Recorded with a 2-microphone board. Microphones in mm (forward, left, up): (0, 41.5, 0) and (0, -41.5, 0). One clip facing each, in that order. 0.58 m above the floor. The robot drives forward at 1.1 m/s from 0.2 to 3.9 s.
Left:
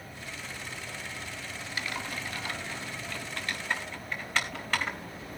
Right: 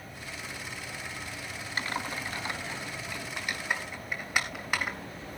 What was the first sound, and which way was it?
Typing on a keyboard, 35° right (ahead or behind).